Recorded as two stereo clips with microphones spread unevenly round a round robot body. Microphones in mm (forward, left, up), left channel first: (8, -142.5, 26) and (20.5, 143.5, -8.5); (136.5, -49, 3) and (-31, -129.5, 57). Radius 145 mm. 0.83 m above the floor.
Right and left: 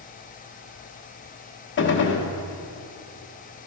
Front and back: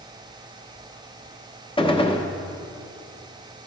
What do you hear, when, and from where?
1.8 s a gunshot: 35° right, 1.0 m